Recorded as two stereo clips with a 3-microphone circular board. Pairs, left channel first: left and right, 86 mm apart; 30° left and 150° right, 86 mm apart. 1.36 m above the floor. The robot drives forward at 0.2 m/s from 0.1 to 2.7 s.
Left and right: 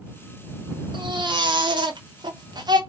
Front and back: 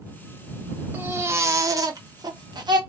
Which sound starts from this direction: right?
A baby crying, at 0.9 s.